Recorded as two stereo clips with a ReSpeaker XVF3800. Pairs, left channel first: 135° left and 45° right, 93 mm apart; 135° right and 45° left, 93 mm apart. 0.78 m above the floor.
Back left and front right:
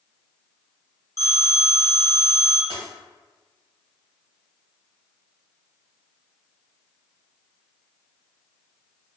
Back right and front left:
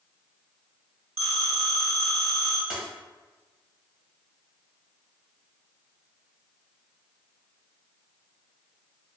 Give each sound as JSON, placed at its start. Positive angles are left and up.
{"t": 1.2, "sound": "a phone ringing", "azimuth_deg": -95, "distance_m": 1.8}
{"t": 2.7, "sound": "a dropped coin", "azimuth_deg": -35, "distance_m": 1.4}